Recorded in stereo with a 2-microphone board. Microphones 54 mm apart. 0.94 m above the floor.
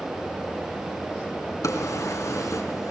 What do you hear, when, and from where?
1.6 s a drawer: 80° left, 3.5 m